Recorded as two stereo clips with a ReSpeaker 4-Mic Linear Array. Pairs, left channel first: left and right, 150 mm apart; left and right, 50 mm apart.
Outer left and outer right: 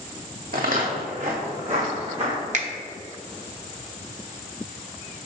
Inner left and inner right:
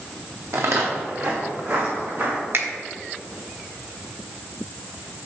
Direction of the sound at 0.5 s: 75° right (ahead or behind).